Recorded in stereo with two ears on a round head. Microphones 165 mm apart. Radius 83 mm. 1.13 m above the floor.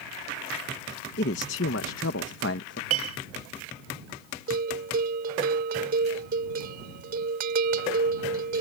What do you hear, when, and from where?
1.2 s a man speaking: 60° left (ahead or behind); by 2.8 s 65° left (ahead or behind)
2.9 s a clink: 80° right
4.5 s a bell: 55° right (ahead or behind)